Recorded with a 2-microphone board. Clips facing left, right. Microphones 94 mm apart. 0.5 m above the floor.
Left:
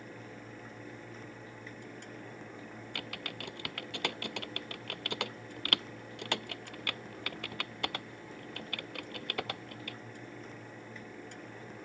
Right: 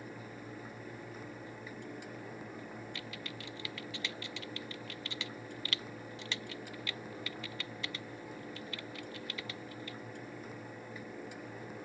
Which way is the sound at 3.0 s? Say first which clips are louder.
Left 2 dB; 60° left (ahead or behind).